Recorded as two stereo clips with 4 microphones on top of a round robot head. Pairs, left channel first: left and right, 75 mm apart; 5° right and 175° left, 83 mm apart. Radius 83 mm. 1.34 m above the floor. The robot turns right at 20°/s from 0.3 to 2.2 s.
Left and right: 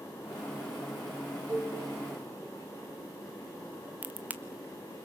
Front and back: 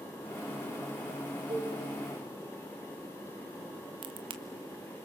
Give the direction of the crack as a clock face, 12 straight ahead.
5 o'clock.